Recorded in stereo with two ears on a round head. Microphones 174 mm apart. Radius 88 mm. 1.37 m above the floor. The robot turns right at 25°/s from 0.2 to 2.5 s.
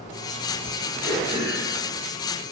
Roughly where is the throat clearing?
Centre.